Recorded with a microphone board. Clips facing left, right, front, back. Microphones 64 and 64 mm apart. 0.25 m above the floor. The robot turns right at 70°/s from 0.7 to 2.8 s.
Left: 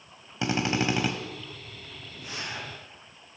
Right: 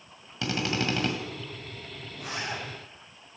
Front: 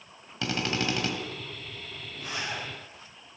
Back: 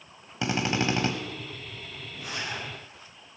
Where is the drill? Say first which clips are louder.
Left 3 dB, back 3 dB; 135° left, 1.6 m; by 1.1 s 160° left, 1.6 m.